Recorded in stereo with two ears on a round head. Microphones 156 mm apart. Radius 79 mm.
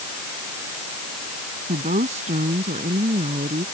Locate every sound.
1.7 s a woman speaking: 45° right (ahead or behind); by 3.6 s 35° right (ahead or behind)